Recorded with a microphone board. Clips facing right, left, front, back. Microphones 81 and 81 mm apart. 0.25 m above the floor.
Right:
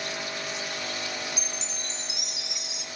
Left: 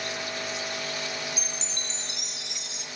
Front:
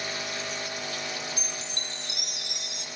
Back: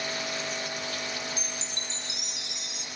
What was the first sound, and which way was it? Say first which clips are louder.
A chime: even, even; 5° right.